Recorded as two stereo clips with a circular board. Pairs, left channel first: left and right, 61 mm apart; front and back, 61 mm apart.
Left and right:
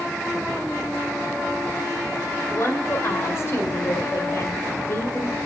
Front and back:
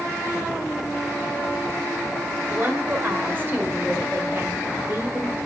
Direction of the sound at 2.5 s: 130° left.